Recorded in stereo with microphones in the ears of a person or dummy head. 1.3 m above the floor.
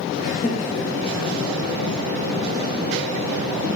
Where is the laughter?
55° left (ahead or behind), 1.5 m; by 1.4 s 35° left (ahead or behind), 2.5 m.